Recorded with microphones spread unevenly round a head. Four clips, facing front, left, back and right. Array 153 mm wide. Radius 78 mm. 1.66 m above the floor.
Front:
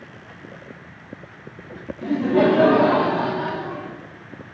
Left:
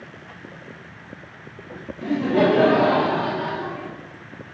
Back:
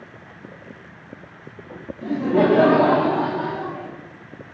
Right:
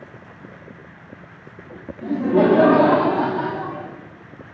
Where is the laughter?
5° right, 0.5 m; by 3.9 s 110° right, 1.2 m.